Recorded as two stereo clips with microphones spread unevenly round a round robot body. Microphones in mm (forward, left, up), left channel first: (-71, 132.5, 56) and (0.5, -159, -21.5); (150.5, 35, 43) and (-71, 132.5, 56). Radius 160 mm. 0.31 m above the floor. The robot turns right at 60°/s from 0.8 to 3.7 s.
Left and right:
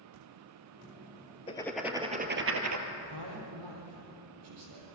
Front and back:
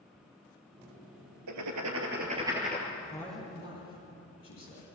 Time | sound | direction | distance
1.5 | writing | 175° left | 2.5 m
2.9 | a man speaking | 120° right | 8.5 m